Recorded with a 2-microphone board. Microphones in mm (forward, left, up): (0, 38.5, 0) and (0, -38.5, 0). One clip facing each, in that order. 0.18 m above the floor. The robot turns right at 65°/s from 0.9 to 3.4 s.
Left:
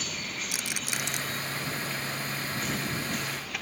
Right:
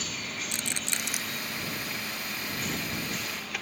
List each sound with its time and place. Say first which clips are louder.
0.5 s a rattle: even; 10° left (ahead or behind); by 1.2 s 10° right (ahead or behind)